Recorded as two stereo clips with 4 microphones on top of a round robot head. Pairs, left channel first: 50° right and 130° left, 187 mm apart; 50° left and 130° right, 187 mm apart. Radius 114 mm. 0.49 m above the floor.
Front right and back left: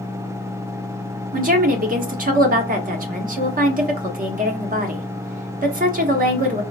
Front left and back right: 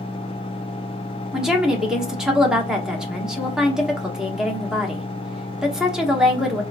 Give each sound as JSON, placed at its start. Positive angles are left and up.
{"t": 1.3, "sound": "a woman speaking", "azimuth_deg": 145, "distance_m": 1.0}